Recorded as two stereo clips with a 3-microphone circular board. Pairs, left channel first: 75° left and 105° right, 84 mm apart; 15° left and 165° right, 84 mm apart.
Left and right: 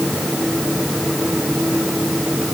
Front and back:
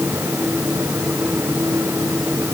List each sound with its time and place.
Only background noise.